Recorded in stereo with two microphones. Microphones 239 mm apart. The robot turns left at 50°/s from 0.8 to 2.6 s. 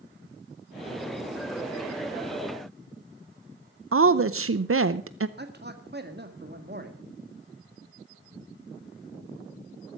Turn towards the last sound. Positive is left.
turn(degrees=-50)  # may be behind; listen again after turning